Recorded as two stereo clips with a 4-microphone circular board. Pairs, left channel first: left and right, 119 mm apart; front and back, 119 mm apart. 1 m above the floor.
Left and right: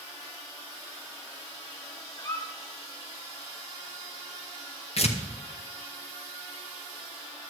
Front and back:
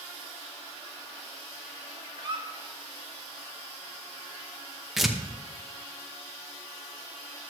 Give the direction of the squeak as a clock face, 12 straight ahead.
7 o'clock.